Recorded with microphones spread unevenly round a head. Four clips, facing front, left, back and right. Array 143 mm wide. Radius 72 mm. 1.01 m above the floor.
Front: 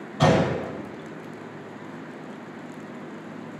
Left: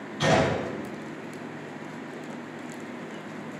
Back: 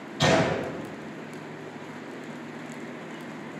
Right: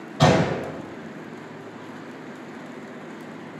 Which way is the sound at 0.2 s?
65° right.